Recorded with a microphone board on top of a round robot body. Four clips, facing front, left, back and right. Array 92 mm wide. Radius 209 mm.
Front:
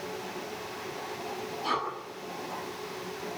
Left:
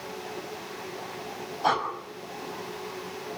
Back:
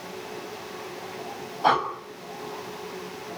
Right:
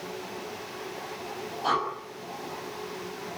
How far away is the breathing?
About 5.5 m.